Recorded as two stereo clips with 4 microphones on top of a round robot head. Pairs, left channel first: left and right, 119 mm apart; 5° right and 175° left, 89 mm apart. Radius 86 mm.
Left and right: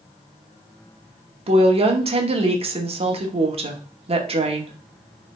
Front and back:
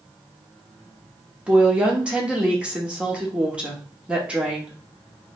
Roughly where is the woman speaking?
Right.